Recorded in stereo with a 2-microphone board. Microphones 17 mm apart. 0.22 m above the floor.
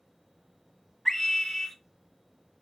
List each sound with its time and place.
1.1 s a scream: 15° left (ahead or behind), 1.2 m